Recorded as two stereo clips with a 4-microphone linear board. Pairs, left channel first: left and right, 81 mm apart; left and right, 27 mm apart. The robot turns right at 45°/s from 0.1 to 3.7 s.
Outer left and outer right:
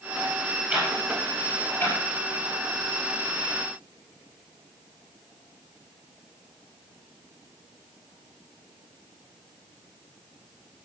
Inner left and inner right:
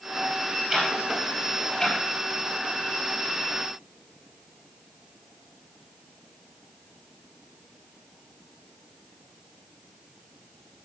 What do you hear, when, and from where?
0.7 s ticking: 15° right (ahead or behind), 4.5 m; by 2.0 s 45° left (ahead or behind), 4.5 m